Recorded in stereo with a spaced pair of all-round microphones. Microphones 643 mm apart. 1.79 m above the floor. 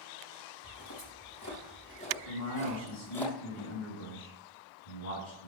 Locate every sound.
0.6 s footsteps: 35° left (ahead or behind), 4 m; by 3.2 s centre (ahead or behind), 3.5 m
2.2 s a man speaking: 80° left, 4.5 m